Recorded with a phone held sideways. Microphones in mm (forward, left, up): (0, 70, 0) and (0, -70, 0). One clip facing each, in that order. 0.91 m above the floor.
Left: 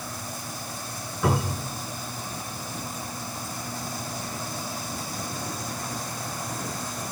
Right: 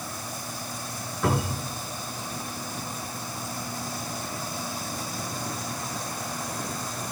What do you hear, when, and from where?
1.2 s a cupboard door: centre (ahead or behind), 9 m